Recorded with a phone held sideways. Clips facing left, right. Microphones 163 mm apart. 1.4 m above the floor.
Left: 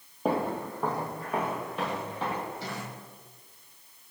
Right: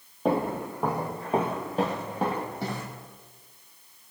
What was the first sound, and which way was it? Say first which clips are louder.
Footsteps: right 2 dB; centre (ahead or behind).